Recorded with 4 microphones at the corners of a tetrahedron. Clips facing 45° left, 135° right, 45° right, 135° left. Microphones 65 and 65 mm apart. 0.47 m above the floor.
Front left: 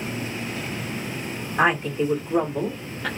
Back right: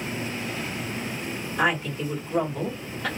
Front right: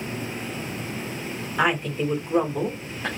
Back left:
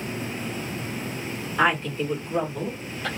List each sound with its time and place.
1.6 s a woman speaking: 30° left, 1.2 m; by 3.1 s 40° right, 1.0 m